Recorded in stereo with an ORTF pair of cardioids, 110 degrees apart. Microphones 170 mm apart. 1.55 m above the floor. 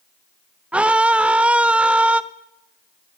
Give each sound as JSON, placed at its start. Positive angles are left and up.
{"t": 0.7, "sound": "a scream", "azimuth_deg": -5, "distance_m": 0.7}